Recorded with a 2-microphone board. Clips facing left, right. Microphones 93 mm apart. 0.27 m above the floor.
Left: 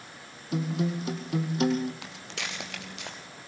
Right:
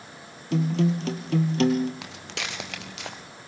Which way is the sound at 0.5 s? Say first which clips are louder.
Right 5 dB; 80° right.